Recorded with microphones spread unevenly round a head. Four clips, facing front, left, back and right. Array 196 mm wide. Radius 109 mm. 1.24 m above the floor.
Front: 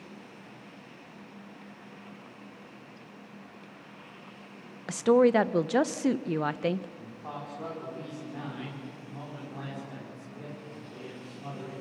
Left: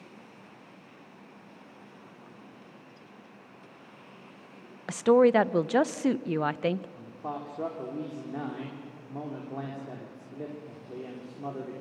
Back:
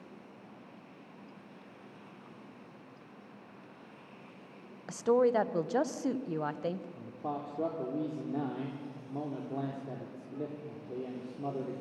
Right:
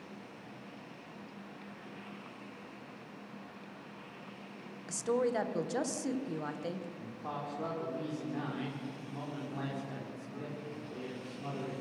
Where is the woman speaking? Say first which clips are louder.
Left 12 dB, front 5 dB; 40° left, 0.7 m.